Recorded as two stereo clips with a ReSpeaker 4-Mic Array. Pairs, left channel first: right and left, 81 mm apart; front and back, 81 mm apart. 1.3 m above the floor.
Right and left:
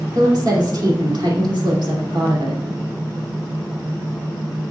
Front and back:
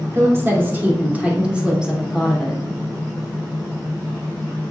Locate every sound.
0.1 s a woman speaking: 125° left, 2.5 m; by 2.6 s 90° left, 3 m